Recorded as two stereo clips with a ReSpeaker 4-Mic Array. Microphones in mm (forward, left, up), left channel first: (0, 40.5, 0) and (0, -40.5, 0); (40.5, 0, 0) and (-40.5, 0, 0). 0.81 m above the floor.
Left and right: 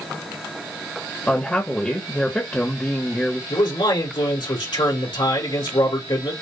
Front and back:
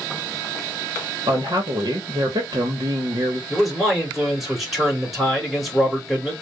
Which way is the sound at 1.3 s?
160° left.